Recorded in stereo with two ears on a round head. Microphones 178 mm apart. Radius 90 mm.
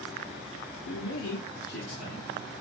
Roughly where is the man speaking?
Left.